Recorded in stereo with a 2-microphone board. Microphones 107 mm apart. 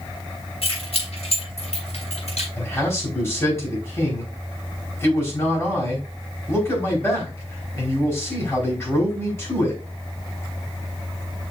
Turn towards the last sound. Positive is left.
turn(degrees=25)  # may be behind; listen again after turning